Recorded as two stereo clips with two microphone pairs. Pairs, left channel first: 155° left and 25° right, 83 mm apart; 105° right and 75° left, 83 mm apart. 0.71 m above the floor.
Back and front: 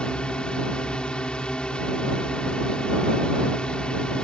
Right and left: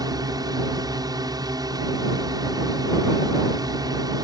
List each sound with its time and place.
0.0 s a drone: 80° left